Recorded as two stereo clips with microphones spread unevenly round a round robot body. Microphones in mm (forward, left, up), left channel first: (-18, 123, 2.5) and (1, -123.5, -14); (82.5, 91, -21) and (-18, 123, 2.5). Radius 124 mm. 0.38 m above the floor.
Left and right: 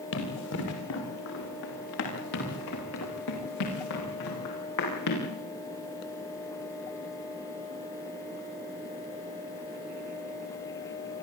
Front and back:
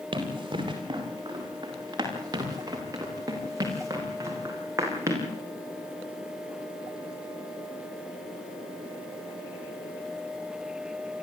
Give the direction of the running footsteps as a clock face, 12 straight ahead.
8 o'clock.